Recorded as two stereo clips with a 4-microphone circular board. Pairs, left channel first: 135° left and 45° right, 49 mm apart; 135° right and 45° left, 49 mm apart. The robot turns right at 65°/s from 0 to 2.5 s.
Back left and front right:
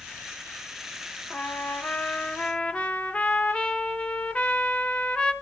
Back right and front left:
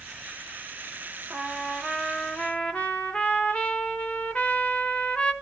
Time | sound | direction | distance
1.3 | a trumpet | 105° left | 0.7 m